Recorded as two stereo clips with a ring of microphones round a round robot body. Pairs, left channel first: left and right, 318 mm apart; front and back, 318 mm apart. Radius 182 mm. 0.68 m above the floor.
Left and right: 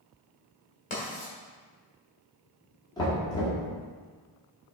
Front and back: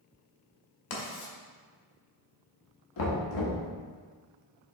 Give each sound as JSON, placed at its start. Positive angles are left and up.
{"t": 0.9, "sound": "writing", "azimuth_deg": 20, "distance_m": 1.6}
{"t": 3.0, "sound": "knocking", "azimuth_deg": 15, "distance_m": 1.6}